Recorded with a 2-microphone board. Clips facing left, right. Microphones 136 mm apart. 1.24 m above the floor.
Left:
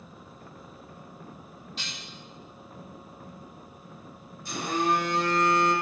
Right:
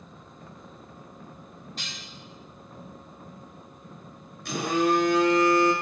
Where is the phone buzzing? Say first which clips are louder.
Right 3 dB; 65° right (ahead or behind), 0.6 m.